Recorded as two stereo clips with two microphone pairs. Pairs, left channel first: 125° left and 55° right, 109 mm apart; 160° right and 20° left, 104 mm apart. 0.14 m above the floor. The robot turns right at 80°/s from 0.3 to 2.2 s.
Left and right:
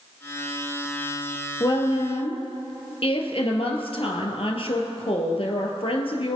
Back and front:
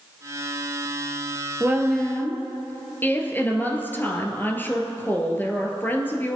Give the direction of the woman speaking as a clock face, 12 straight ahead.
9 o'clock.